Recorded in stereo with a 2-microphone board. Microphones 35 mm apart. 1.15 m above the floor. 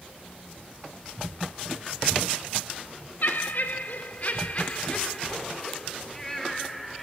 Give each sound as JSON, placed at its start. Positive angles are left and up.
{"t": 3.2, "sound": "laughter", "side_deg": 65, "distance_m": 3.0}